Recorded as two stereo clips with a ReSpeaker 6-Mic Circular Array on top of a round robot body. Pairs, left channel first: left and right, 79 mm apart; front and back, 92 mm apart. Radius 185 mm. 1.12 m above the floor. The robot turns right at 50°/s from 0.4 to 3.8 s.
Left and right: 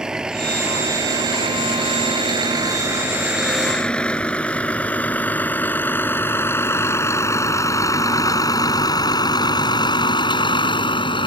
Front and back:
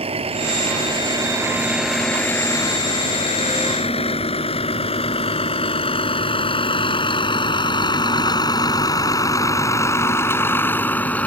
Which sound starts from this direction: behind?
A vehicle, at 0.0 s.